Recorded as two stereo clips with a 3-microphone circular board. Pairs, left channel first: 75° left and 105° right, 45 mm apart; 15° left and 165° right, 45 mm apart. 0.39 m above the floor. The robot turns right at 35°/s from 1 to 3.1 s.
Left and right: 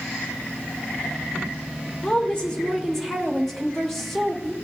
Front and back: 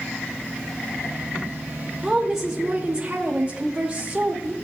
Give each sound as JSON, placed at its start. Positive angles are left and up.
{"t": 2.0, "sound": "a woman speaking", "azimuth_deg": 115, "distance_m": 1.0}